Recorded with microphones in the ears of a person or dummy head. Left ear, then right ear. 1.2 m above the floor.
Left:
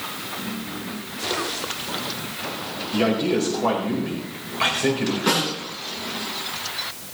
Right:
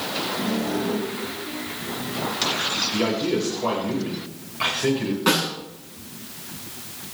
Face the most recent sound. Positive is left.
turn(degrees=-20)  # may be behind; listen again after turning